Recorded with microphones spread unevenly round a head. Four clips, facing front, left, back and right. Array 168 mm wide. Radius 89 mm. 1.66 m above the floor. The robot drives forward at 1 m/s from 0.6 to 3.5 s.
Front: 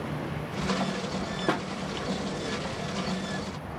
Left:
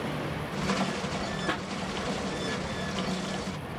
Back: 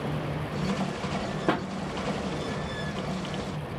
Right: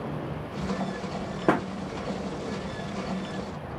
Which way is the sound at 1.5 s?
100° right.